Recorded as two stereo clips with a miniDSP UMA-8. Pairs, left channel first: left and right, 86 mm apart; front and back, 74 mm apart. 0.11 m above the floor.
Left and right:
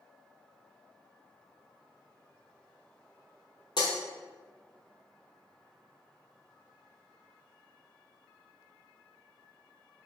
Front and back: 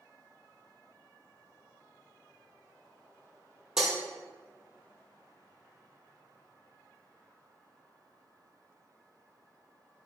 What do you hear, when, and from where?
3.8 s breaking glass: 100° left, 1.1 m